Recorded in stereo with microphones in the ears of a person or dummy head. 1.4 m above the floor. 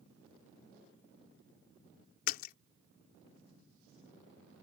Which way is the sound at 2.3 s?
50° left (ahead or behind).